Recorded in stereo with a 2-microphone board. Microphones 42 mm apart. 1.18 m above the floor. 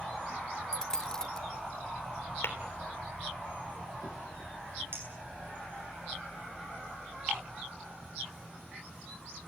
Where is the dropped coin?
15° left (ahead or behind), 1.0 m.